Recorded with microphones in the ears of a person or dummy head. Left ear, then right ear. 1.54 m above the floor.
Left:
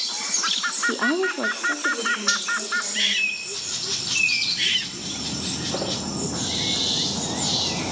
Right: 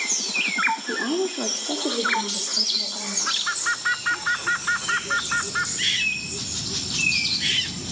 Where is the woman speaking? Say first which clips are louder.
Left 3 dB; 80° left, 0.8 m; by 3.3 s 40° right (ahead or behind), 3 m.